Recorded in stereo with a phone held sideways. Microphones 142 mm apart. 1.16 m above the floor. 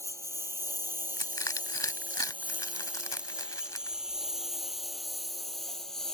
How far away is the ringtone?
No ringtone in this recording.